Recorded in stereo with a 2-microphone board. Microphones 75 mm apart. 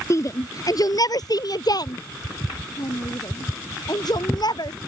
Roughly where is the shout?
Left.